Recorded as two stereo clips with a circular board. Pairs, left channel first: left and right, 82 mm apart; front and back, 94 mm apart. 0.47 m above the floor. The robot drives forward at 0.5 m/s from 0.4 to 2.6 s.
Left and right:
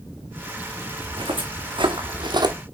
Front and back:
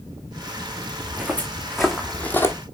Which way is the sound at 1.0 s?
110° right.